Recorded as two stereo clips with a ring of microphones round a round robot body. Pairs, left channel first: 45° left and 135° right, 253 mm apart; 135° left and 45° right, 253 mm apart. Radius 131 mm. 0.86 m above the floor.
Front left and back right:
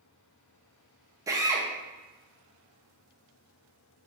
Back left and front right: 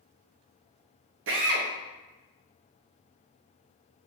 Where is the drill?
60° right, 0.6 m.